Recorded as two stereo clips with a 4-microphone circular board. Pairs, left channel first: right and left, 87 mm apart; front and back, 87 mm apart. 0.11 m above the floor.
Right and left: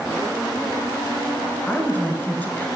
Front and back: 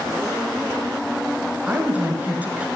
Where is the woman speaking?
135° right, 1.2 m.